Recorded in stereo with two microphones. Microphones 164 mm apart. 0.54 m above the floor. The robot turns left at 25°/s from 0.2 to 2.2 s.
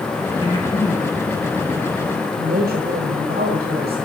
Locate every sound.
0.4 s breathing: 30° left (ahead or behind), 4.5 m; by 2.3 s 15° right (ahead or behind), 4.5 m
2.4 s a woman speaking: 70° right (ahead or behind), 2 m